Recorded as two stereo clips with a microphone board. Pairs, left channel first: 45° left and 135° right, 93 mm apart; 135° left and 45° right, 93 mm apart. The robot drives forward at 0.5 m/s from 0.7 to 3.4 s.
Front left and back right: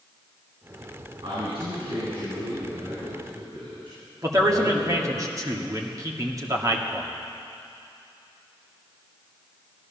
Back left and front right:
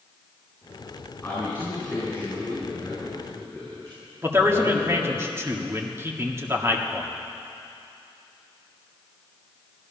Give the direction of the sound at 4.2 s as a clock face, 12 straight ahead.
3 o'clock.